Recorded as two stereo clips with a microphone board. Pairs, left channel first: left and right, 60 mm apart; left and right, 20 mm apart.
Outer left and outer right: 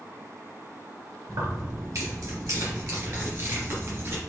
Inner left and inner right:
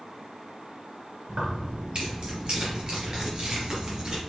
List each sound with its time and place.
1.3 s keys jangling: 70° right (ahead or behind), 2.5 m; by 4.2 s 45° right (ahead or behind), 3 m